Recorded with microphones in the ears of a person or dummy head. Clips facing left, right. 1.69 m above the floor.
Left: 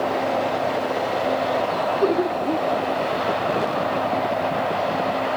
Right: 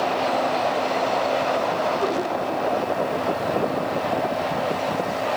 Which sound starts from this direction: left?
Laughter, at 2.0 s.